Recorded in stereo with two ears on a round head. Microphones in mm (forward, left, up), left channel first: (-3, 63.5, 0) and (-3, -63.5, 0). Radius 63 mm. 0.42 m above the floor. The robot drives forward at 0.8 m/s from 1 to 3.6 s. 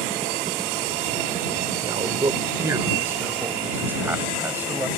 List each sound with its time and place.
1.8 s a man speaking: 30° right (ahead or behind); by 4.9 s 15° right (ahead or behind)